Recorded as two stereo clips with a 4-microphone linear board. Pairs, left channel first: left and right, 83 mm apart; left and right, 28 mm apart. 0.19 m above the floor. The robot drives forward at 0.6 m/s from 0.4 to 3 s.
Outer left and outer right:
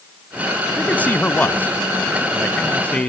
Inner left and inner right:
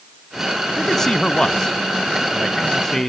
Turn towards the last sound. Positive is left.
turn(degrees=15)  # may be behind; listen again after turning